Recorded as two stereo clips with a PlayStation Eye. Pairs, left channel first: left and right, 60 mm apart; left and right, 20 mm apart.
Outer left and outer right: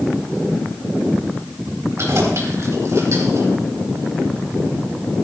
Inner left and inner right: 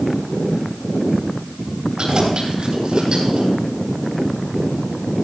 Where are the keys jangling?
50° right (ahead or behind), 3.5 m; by 3.5 s 60° right (ahead or behind), 4.5 m.